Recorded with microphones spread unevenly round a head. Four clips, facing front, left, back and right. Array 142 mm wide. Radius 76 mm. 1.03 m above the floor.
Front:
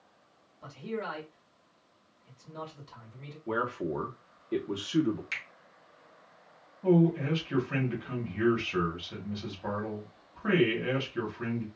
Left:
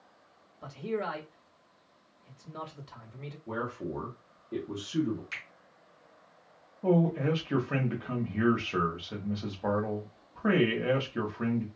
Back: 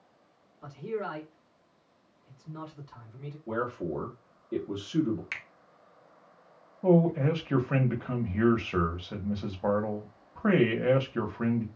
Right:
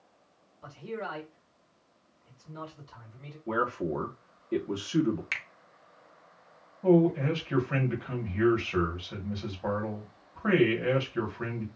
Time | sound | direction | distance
0.6 | a man speaking | 75° left | 1.4 m
3.5 | a man speaking | 40° right | 0.8 m
5.3 | a finger snap | 100° right | 0.8 m
6.8 | a man speaking | 165° left | 0.9 m